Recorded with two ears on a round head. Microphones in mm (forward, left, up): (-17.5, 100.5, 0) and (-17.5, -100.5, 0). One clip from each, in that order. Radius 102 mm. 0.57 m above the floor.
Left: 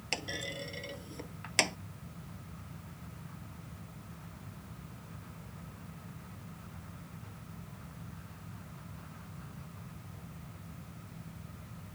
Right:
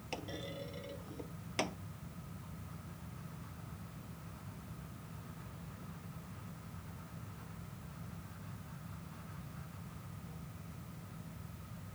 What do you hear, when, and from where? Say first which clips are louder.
0.1 s a clunk: left 7 dB; 50° left (ahead or behind)